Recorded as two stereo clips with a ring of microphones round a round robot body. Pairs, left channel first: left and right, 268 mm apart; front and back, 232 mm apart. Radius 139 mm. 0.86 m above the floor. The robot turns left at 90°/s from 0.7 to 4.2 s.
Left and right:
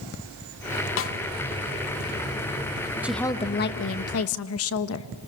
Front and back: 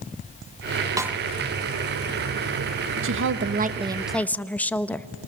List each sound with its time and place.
1.0 s a snare drum: 110° left, 0.7 m; by 1.2 s 90° left, 0.7 m
3.0 s a woman speaking: 170° right, 0.9 m; by 5.1 s 80° left, 0.9 m